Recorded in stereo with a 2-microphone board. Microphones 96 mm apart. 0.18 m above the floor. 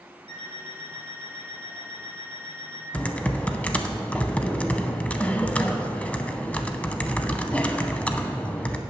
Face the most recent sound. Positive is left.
turn(degrees=15)  # may be behind; listen again after turning